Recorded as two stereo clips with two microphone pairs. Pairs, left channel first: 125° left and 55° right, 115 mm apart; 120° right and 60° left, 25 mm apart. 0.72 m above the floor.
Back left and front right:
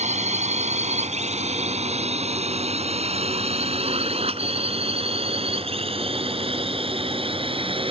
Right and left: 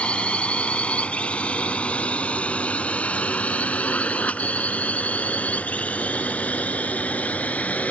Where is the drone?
75° right; by 7.9 s 95° right.